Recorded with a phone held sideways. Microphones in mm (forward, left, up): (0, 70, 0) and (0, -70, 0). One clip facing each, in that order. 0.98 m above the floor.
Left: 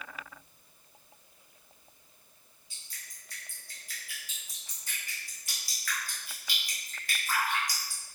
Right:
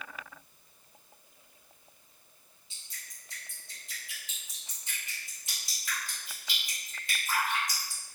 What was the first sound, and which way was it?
Dripping, 20° right (ahead or behind).